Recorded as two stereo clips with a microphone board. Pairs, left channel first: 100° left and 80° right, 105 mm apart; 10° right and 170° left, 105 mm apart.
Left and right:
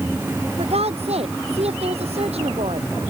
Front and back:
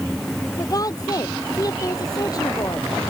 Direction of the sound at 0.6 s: 65° right.